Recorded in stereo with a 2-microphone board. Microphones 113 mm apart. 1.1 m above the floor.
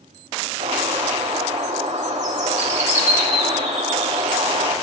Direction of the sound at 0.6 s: 80° right.